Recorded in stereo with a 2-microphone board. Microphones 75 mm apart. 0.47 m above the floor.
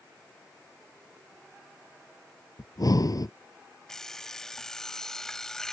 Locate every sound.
2.6 s breathing: 60° left (ahead or behind)
3.9 s an alarm clock: 10° left (ahead or behind)